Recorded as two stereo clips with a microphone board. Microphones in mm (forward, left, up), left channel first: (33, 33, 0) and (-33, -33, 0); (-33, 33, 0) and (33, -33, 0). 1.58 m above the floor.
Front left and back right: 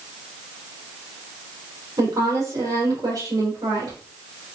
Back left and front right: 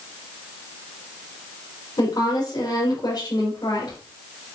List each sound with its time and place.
2.0 s a woman speaking: 175° left, 4 m